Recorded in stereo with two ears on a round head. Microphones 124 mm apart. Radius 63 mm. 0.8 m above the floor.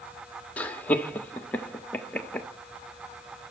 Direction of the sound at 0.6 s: 10° left (ahead or behind).